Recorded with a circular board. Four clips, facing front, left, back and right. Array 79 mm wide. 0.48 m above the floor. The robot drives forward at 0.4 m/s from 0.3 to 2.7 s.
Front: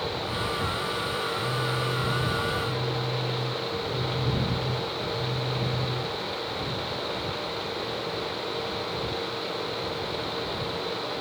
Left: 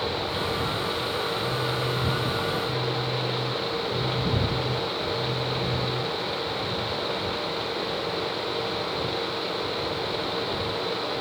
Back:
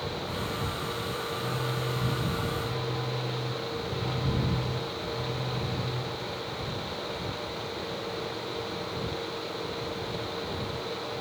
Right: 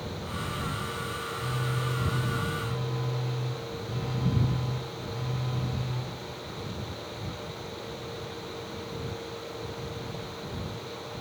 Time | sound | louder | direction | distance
1.3 | a phone buzzing | left 6 dB, front 3 dB | 175° right | 8.5 m